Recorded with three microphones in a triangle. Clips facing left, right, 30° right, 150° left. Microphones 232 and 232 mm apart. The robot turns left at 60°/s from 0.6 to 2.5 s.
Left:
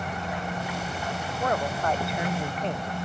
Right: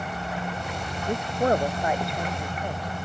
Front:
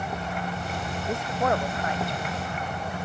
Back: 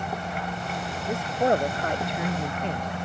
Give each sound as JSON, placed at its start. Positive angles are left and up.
{"t": 1.1, "sound": "a man speaking", "azimuth_deg": -120}